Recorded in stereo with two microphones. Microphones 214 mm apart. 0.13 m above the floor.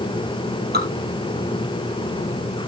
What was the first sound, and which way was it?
Dripping, 50° right (ahead or behind).